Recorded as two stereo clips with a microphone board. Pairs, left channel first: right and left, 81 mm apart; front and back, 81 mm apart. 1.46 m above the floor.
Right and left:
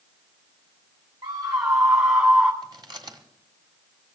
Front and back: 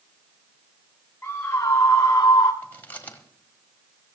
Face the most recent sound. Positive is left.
turn(degrees=65)